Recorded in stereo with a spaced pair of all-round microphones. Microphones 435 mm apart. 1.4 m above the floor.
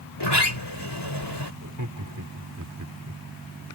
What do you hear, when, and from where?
0.2 s a sliding door: 65° left (ahead or behind)
1.6 s laughter: 45° right (ahead or behind)